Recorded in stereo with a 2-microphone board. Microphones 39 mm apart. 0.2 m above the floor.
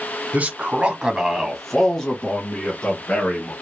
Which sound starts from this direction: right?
A man speaking, at 0.3 s.